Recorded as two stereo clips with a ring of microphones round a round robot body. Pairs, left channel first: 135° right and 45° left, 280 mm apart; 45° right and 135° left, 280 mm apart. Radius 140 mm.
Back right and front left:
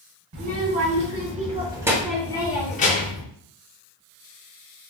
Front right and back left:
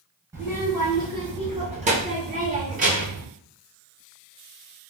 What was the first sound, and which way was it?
A child speaking, 55° left.